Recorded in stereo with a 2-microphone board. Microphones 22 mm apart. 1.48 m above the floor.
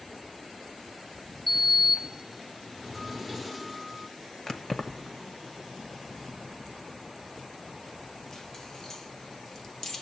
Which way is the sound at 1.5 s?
5° left (ahead or behind).